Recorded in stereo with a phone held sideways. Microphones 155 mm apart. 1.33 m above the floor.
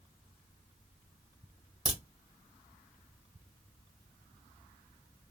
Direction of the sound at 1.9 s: 45° right (ahead or behind).